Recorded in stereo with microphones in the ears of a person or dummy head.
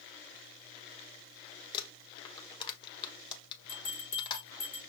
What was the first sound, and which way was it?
Crumpling, 30° left (ahead or behind).